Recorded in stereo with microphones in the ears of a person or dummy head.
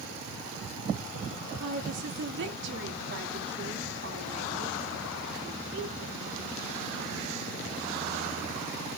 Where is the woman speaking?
70° right (ahead or behind), 2 m.